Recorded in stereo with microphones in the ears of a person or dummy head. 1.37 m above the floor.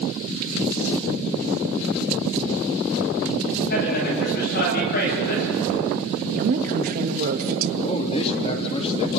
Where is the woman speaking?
50° right (ahead or behind), 1.7 m.